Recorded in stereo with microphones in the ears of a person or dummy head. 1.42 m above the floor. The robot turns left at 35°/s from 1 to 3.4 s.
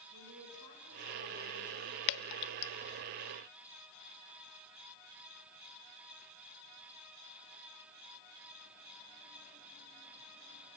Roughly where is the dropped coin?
No dropped coin in this recording.